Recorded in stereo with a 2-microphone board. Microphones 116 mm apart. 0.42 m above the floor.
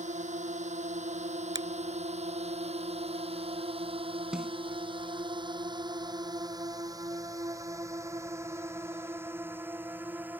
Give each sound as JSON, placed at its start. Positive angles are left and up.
{"t": 0.0, "sound": "a drone", "side_deg": -85}
{"t": 1.6, "sound": "a finger snap", "side_deg": -35}
{"t": 4.3, "sound": "a snare drum", "side_deg": -5}